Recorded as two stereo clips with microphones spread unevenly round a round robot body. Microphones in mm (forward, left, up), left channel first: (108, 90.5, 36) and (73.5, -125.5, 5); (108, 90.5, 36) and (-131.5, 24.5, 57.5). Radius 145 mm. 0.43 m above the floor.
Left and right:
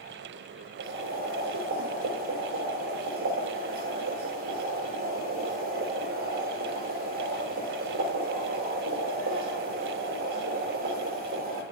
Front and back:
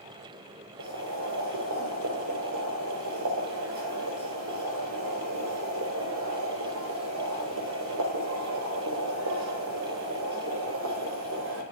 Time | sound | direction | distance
0.8 | boiling | 135° right | 1.7 m